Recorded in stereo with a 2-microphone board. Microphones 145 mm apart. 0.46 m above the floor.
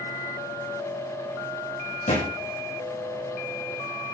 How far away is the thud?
About 5.5 m.